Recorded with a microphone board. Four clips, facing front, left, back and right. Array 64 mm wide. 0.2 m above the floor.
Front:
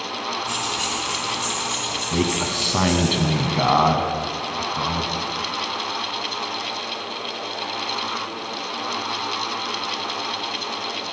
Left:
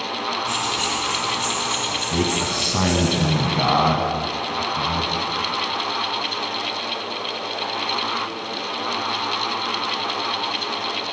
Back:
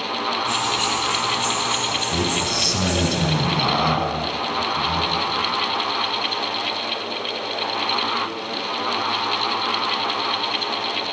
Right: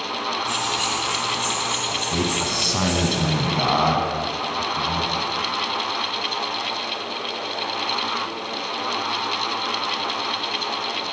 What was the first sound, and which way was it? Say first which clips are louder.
Keys jangling: even, back 4 dB; 170° right.